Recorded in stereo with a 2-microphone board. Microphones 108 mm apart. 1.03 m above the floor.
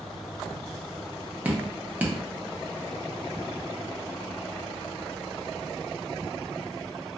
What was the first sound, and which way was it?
Dripping, 15° right (ahead or behind).